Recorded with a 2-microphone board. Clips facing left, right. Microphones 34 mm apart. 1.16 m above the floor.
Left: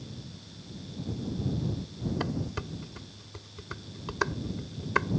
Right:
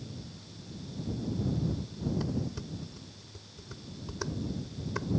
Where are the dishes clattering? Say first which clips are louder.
Left 2 dB; 60° left (ahead or behind).